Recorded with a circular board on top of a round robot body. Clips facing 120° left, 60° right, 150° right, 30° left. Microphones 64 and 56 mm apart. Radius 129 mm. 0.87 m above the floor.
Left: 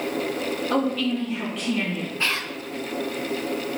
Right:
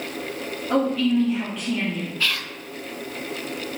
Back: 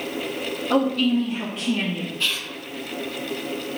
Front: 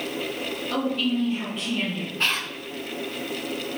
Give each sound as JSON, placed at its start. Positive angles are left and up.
{"t": 0.7, "sound": "a woman speaking", "azimuth_deg": -135, "distance_m": 2.5}
{"t": 2.2, "sound": "whispering", "azimuth_deg": 60, "distance_m": 0.5}